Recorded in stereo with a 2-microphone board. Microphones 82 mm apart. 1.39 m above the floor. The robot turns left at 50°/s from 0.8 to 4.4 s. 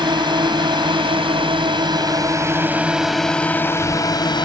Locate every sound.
0.0 s a drone: 65° right (ahead or behind); by 4.5 s 60° left (ahead or behind)